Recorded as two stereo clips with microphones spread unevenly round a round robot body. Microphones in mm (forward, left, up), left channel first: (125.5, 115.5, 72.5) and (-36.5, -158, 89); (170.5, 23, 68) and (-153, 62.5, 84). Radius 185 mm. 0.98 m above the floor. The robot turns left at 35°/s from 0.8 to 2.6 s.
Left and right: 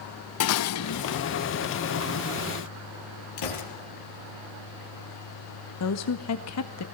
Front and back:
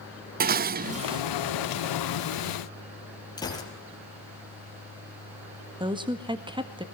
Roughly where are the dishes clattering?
Left.